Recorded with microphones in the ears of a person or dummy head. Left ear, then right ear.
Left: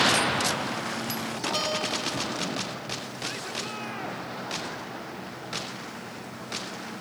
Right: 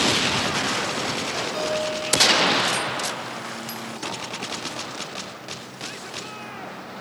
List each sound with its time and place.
1.5 s a guitar: 30° left (ahead or behind), 6.5 m